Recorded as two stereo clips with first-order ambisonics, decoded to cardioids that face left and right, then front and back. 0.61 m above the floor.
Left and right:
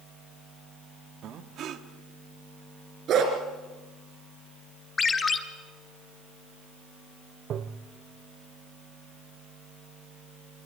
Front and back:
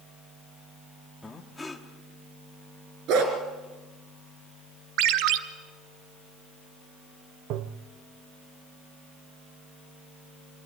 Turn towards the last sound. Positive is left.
turn(degrees=-145)